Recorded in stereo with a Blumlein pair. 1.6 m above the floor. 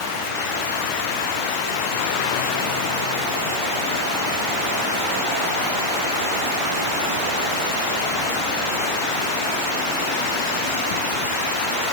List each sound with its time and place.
Only background noise.